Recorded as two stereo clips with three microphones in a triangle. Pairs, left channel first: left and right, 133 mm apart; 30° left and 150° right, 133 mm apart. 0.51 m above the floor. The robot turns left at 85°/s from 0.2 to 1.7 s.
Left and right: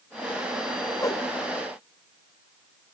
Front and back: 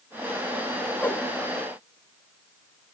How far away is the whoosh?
About 0.5 m.